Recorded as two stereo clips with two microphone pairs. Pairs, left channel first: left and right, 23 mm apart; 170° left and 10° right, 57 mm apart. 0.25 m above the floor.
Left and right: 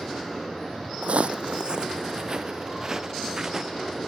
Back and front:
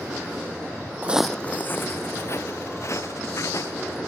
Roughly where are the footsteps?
Ahead right.